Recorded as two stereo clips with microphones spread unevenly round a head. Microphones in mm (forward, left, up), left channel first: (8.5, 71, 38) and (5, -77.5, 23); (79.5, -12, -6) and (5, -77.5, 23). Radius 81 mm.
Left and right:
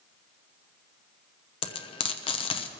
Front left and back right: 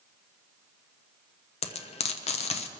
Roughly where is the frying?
Ahead left.